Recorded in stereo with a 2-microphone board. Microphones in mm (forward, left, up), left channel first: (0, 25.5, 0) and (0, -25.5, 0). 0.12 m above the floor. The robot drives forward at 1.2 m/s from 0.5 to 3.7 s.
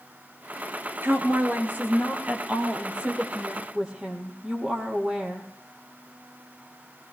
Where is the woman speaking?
45° right (ahead or behind), 2.0 m; by 5.5 s 20° right (ahead or behind), 4 m.